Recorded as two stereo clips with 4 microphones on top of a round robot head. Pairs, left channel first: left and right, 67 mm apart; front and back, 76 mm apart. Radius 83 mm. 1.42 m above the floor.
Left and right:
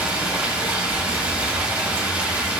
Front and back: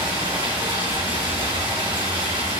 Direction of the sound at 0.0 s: 150° right.